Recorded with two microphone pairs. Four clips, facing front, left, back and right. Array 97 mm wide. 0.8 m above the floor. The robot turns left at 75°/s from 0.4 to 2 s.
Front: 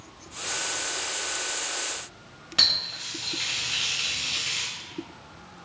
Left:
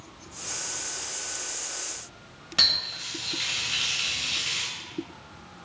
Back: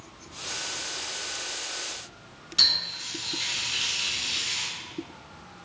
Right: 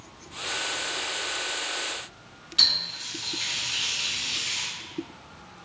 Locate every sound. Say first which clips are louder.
2.6 s a running tap: left 2 dB, front 2 dB; 45° left, 0.8 m